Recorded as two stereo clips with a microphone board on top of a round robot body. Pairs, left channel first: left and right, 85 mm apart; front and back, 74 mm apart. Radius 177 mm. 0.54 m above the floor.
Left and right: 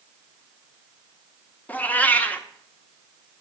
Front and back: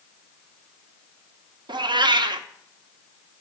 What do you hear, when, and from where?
1.7 s a cat meowing: 165° left, 0.6 m